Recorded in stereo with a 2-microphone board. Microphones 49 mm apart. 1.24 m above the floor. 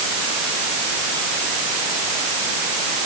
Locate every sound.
Only background noise.